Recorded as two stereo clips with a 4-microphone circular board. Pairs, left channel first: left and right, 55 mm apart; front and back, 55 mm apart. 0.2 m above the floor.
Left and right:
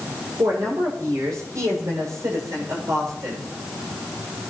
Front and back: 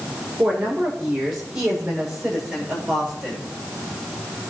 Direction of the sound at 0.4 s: 105° right.